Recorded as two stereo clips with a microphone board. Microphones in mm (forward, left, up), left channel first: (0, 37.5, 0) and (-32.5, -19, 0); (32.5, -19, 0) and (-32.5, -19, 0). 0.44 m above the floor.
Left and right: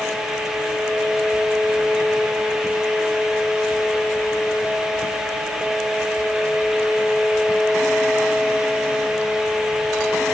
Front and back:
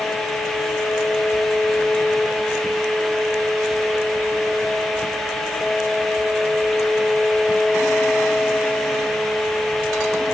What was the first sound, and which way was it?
Only background noise.